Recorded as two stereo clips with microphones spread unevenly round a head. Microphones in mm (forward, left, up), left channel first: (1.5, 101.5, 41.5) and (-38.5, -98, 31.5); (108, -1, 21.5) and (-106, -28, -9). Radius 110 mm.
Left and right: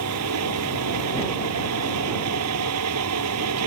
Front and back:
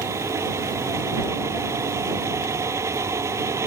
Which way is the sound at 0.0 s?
95° right.